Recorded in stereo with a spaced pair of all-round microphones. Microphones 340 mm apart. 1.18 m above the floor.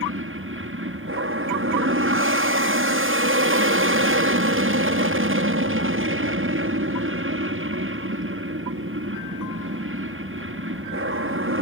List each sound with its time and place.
0.0 s an aircraft: 35° right (ahead or behind)